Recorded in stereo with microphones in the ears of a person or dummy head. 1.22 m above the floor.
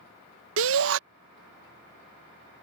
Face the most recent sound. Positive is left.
turn(degrees=-70)  # may be behind; listen again after turning